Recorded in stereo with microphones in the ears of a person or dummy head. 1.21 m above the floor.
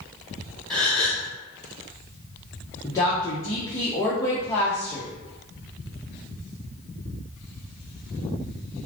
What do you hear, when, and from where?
0.7 s a gasp: 5° left (ahead or behind), 0.6 m
2.8 s a woman speaking: 20° left (ahead or behind), 0.5 m